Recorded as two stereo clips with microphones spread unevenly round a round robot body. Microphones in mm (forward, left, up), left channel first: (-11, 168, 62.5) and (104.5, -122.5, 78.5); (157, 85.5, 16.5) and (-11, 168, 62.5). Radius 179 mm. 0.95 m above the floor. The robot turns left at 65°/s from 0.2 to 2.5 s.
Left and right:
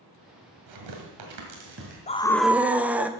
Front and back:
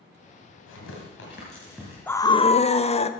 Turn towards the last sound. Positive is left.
turn(degrees=20)